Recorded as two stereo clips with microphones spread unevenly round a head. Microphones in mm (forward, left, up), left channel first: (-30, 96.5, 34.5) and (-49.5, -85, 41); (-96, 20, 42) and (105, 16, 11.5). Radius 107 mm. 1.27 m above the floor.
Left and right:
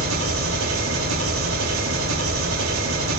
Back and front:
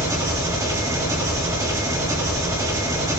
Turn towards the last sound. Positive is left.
turn(degrees=-80)